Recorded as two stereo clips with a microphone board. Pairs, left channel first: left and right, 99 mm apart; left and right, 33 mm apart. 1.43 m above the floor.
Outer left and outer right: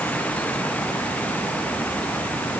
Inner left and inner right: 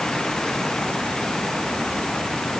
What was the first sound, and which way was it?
Only background noise.